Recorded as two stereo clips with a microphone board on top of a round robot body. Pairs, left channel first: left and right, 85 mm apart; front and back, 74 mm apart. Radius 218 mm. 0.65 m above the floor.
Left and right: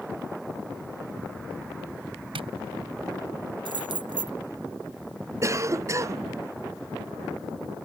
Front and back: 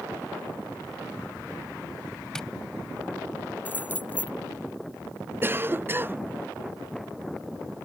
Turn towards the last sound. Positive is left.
turn(degrees=-130)